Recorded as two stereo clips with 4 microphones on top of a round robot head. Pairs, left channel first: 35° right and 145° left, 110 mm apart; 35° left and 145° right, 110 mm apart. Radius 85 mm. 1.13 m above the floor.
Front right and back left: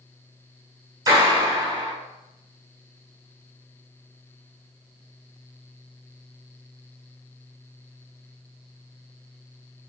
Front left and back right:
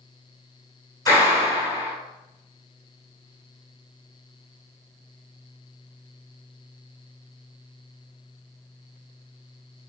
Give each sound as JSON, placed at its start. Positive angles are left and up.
{"t": 1.1, "sound": "a clap", "azimuth_deg": 90, "distance_m": 6.0}